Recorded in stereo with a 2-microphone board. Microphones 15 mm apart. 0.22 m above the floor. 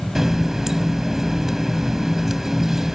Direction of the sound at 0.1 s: 25° right (ahead or behind).